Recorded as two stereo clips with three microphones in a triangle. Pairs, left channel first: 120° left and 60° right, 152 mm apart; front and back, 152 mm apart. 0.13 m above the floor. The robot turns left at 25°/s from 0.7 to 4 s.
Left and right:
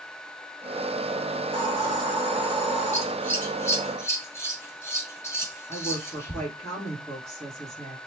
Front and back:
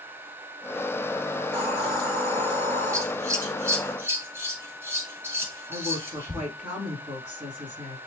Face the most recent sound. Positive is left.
turn(degrees=165)